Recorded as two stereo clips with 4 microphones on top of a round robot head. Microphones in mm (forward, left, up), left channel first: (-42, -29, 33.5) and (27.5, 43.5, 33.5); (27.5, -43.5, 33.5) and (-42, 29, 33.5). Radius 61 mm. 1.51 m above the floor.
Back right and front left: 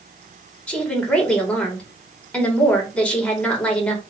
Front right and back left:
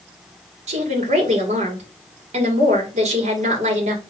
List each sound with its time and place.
0.7 s a woman speaking: 145° left, 2 m